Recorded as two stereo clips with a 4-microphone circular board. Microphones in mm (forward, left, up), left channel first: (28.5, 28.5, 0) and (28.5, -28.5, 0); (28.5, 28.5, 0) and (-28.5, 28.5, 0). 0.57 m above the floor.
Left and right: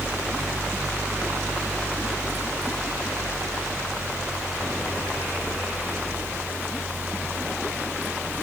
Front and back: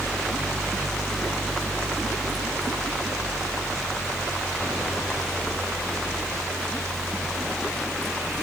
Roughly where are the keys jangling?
I don't hear keys jangling.